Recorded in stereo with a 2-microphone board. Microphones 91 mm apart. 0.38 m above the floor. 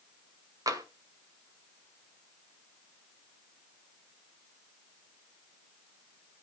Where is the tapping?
40° right (ahead or behind), 1.8 m.